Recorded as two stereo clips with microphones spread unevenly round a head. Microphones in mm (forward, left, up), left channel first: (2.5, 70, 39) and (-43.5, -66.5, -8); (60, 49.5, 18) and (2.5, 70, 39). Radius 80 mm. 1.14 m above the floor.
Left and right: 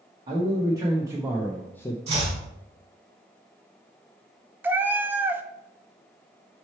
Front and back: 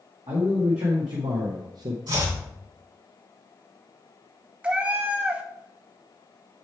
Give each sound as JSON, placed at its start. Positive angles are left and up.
{"t": 0.3, "sound": "a man speaking", "azimuth_deg": -165, "distance_m": 1.9}
{"t": 2.1, "sound": "chopping", "azimuth_deg": -165, "distance_m": 4.0}
{"t": 4.6, "sound": "a cat meowing", "azimuth_deg": 155, "distance_m": 0.5}